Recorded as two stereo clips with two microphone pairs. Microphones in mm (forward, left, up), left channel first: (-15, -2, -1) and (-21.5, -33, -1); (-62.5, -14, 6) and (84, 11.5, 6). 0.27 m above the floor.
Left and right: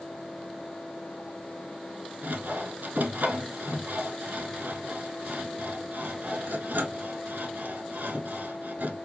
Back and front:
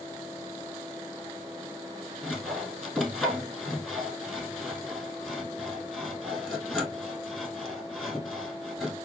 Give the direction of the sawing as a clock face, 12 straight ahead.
3 o'clock.